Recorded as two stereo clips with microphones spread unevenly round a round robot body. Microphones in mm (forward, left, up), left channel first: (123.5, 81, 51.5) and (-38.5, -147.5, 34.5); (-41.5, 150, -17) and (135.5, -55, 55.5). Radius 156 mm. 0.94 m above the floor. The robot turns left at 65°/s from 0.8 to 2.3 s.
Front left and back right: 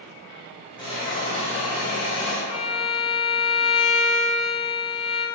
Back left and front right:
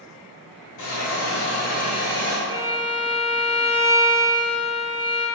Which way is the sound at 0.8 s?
125° left.